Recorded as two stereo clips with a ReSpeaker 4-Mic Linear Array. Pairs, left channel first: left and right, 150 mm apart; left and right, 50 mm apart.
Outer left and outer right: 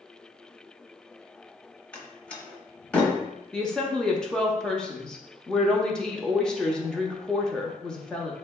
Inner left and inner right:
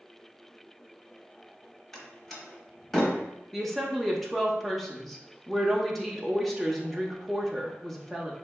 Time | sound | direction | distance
1.9 | a door slam | 5° left (ahead or behind) | 0.8 m
3.5 | a woman speaking | 5° left (ahead or behind) | 0.6 m